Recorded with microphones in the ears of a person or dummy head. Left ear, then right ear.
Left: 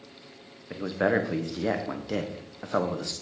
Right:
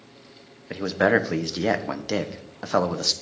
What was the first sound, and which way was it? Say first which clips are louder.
A man speaking: right 5 dB; 25° right (ahead or behind).